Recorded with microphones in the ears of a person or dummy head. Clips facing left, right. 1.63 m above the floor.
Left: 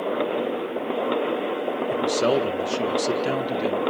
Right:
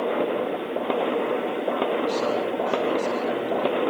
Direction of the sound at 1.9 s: 60° left (ahead or behind).